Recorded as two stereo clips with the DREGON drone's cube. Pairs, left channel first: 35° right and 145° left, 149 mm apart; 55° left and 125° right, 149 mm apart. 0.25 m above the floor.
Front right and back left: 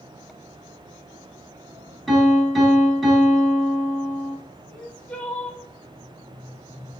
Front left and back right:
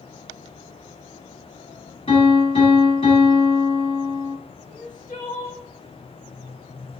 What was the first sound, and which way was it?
A piano, 55° left.